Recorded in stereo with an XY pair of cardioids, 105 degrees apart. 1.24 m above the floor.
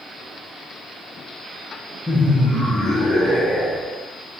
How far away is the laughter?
About 0.8 m.